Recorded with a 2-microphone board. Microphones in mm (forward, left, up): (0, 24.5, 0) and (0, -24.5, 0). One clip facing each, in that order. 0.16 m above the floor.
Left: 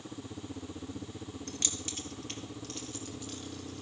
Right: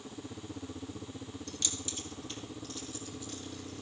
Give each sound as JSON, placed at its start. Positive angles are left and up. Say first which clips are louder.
{"t": 1.5, "sound": "keys jangling", "louder": "even", "side_deg": 40, "distance_m": 1.8}